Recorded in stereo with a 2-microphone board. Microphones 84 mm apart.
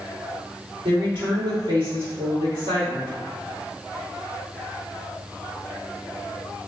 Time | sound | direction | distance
0.8 | a woman speaking | 85° right | 1.9 m